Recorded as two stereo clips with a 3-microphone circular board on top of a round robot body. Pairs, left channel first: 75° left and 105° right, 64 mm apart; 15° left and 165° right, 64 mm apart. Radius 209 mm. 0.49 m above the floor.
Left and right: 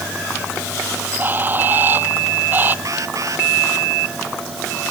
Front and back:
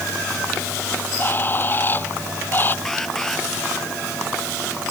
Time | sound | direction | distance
0.9 | a bird | 45° right | ?
2.9 | an alarm | 65° right | ?